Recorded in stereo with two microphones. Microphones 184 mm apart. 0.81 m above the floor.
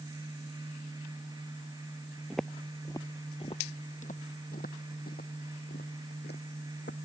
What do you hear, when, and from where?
2.3 s footsteps: centre (ahead or behind); by 7.0 s 70° left (ahead or behind)